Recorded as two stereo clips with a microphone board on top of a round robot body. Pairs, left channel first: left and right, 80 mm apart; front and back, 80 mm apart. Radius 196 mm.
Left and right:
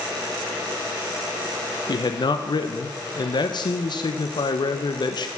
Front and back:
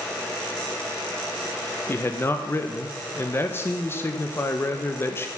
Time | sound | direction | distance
1.9 | a man speaking | 60° left | 0.8 m